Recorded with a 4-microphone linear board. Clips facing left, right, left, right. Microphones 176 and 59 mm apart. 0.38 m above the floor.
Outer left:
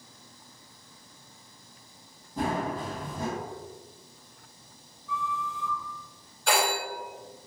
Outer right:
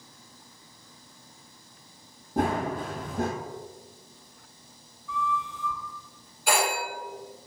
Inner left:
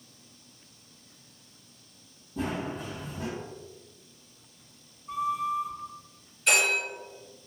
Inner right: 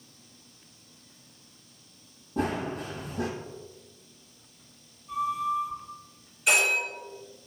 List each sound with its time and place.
2.4 s running footsteps: 65° right (ahead or behind), 0.7 m
5.1 s a flute: 40° left (ahead or behind), 1.1 m
6.5 s a phone ringing: 5° right (ahead or behind), 1.4 m